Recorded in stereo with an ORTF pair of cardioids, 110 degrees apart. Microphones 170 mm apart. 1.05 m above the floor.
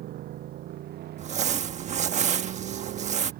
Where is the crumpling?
45° right.